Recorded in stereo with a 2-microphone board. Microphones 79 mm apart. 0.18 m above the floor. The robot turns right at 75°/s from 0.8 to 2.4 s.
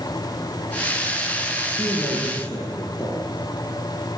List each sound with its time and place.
1.8 s a man speaking: 45° left, 5.5 m; by 3.3 s 90° left, 5.5 m